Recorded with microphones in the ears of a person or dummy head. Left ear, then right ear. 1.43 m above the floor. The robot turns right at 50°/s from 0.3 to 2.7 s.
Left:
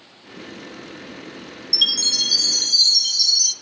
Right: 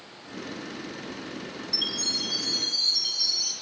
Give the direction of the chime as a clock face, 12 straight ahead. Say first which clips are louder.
Left 10 dB; 10 o'clock.